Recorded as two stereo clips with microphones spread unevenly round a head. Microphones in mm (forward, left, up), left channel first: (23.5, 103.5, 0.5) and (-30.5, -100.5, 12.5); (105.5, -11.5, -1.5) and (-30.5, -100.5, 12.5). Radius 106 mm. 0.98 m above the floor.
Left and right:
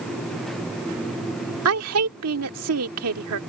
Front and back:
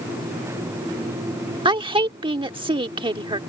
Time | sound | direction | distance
1.6 | a woman speaking | 85° right | ?